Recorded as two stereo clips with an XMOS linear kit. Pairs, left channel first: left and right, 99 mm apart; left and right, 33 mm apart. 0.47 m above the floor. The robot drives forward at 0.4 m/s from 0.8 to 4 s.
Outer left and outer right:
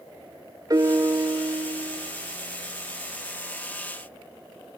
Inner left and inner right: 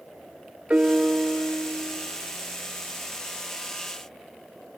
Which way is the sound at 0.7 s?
35° right (ahead or behind).